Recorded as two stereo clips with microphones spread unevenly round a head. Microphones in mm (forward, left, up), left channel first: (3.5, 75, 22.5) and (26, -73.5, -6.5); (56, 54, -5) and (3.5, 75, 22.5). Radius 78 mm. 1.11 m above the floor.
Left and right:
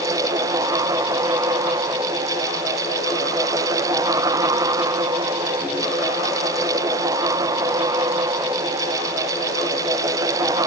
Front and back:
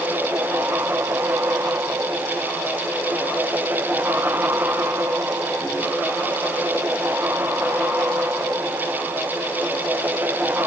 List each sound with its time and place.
Only background noise.